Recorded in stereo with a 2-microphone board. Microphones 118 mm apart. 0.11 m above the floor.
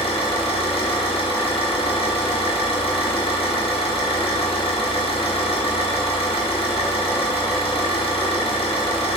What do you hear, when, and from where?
0.0 s an engine running: 60° left (ahead or behind), 1.0 m